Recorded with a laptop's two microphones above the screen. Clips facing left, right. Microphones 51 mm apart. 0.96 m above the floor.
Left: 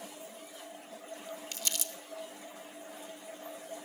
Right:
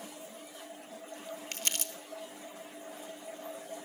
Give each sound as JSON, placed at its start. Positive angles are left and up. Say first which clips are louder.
{"t": 1.5, "sound": "crumpling", "louder": "right 3 dB", "side_deg": -50, "distance_m": 0.8}